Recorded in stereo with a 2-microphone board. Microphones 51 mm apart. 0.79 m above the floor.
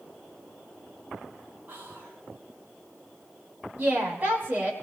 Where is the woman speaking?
35° right (ahead or behind), 6 m.